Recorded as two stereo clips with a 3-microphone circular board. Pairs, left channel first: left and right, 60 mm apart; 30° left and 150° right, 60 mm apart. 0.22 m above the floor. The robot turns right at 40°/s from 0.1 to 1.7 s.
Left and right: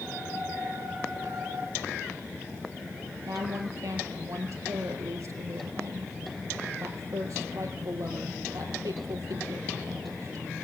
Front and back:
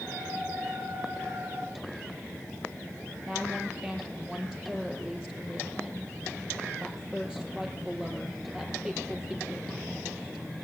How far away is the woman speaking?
About 6 m.